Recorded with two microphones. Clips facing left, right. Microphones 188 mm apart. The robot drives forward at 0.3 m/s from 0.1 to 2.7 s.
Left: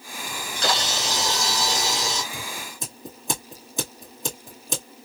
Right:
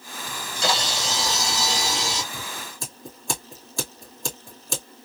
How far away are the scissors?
About 2 m.